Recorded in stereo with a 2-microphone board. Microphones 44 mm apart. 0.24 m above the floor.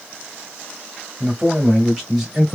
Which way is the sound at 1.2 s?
25° right (ahead or behind).